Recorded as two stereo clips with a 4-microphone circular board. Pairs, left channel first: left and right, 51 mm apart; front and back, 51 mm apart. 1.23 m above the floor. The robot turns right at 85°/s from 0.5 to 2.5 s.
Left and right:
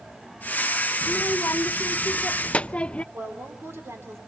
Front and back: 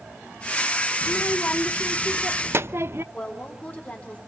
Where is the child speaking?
25° left, 0.6 m; by 3.0 s 155° left, 0.6 m.